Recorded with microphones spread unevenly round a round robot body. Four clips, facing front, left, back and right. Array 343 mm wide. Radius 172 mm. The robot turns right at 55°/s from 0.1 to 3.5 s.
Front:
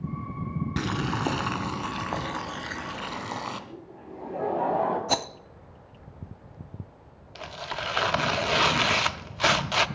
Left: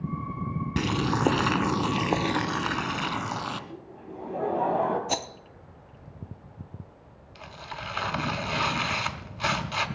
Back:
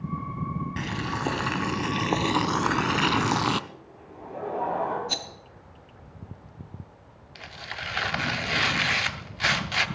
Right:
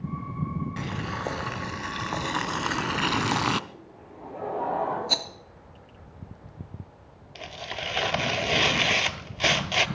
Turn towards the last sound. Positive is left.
turn(degrees=-45)